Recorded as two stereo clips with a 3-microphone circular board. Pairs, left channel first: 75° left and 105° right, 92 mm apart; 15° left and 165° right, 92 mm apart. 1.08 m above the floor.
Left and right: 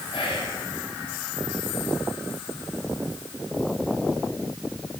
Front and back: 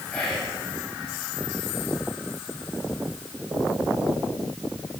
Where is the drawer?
No drawer in this recording.